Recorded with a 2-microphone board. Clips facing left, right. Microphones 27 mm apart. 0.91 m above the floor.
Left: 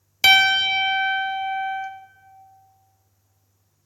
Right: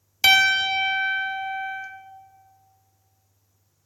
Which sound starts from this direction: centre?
A piano, at 0.2 s.